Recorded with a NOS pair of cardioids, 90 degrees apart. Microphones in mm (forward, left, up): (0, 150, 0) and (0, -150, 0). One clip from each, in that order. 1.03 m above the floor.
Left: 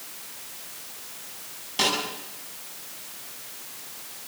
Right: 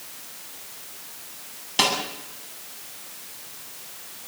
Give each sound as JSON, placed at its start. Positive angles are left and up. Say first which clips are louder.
{"t": 1.8, "sound": "a snare drum", "louder": "right 2 dB", "azimuth_deg": -45, "distance_m": 9.0}